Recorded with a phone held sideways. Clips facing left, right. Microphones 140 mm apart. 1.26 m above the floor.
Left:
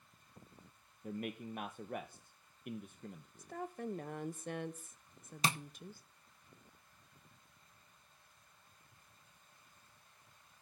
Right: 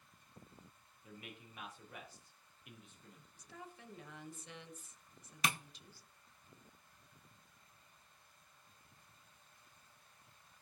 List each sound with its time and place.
1.0 s a man speaking: 50° left (ahead or behind), 0.5 m
3.4 s a woman speaking: 50° left (ahead or behind), 0.6 m
5.4 s tapping: 30° left (ahead or behind), 0.6 m